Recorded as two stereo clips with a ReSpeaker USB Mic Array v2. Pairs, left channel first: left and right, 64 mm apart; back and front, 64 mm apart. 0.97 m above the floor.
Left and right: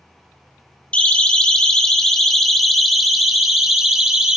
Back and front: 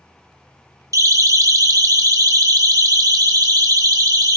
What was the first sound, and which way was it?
A siren, 20° left.